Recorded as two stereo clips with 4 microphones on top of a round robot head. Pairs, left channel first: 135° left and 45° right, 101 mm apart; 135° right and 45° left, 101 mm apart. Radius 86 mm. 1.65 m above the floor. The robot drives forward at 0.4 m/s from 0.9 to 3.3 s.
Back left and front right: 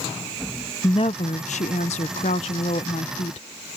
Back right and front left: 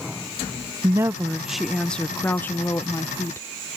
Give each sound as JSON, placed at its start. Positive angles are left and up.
{"t": 0.8, "sound": "a woman speaking", "azimuth_deg": 95}